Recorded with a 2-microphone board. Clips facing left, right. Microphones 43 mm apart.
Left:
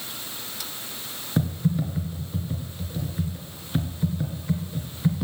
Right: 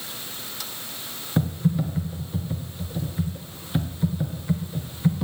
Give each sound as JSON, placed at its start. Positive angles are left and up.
{"t": 1.4, "sound": "typing on a keyboard", "side_deg": -5, "distance_m": 1.3}